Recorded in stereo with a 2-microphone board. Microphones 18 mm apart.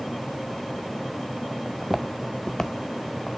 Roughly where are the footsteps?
Right.